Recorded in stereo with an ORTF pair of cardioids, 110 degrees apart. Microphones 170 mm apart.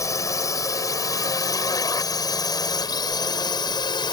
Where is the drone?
20° left; by 4.1 s 25° left.